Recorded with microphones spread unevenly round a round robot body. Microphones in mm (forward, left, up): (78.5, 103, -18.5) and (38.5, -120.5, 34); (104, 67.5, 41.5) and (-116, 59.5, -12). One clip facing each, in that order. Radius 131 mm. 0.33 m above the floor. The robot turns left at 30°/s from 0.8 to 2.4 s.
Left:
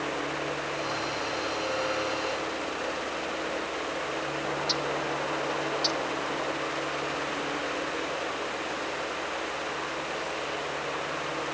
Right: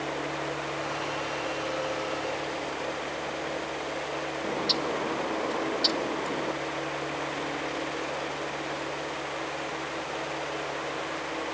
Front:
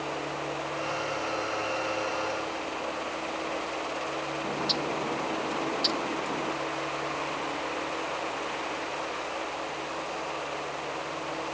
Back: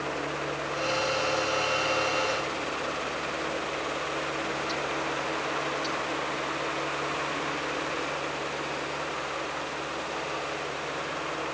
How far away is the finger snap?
I don't hear a finger snap.